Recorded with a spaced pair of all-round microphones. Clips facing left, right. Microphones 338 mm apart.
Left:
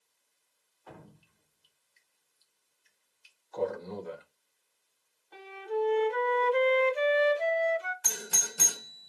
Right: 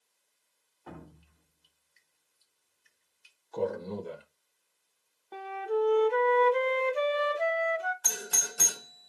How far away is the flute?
About 1.2 m.